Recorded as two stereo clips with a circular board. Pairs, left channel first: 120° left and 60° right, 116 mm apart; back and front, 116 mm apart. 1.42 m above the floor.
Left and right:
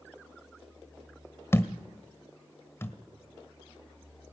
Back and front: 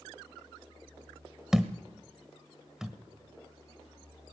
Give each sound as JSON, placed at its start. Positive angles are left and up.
{"t": 1.5, "sound": "a thud", "azimuth_deg": 80, "distance_m": 1.3}